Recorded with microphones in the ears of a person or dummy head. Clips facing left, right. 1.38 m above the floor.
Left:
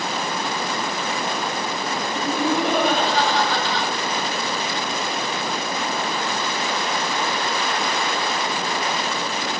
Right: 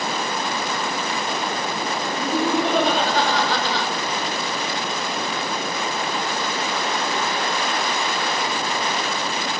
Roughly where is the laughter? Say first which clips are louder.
Right 1 dB; centre.